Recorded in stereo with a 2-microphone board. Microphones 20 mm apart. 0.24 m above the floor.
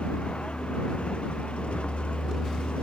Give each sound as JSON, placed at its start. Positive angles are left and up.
{"t": 0.0, "sound": "a vehicle", "side_deg": 80}